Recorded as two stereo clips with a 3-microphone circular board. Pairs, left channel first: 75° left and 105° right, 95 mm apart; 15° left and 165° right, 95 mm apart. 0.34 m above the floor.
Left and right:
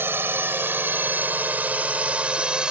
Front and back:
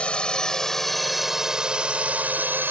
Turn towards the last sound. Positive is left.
turn(degrees=-170)